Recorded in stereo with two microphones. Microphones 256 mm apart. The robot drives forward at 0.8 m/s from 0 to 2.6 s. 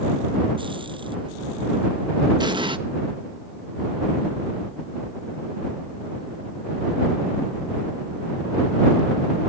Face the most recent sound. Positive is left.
turn(degrees=-20)  # may be behind; listen again after turning